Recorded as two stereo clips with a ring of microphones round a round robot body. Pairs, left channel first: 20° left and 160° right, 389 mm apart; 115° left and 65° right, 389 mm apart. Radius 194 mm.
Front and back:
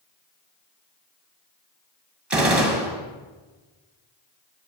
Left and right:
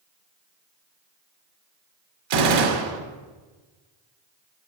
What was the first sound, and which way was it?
A gunshot, 70° right.